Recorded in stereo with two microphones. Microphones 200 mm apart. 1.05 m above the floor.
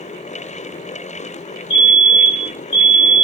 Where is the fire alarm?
Centre (ahead or behind), 6 m.